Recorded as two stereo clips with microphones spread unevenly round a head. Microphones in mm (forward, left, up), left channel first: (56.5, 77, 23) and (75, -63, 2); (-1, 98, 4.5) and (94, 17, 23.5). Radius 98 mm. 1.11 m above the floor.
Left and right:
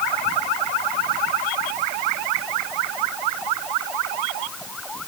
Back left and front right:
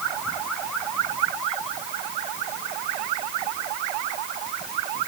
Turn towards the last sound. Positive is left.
No sound to turn to.